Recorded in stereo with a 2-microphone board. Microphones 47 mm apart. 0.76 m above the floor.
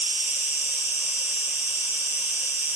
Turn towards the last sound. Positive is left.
turn(degrees=-45)  # may be behind; listen again after turning